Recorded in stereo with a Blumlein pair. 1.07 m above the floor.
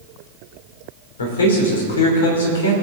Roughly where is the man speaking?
Ahead left.